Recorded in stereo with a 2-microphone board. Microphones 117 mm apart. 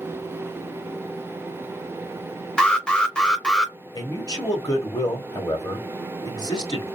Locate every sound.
2.6 s an alarm: 5° left (ahead or behind), 0.6 m
3.9 s a man speaking: 35° left (ahead or behind), 1.1 m